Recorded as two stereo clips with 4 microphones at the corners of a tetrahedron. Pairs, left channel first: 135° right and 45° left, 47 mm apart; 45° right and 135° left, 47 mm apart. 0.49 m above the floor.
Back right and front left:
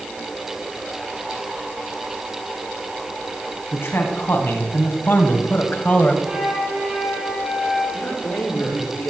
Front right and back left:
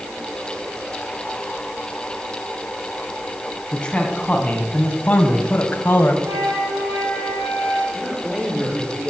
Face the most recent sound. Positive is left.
turn(degrees=-145)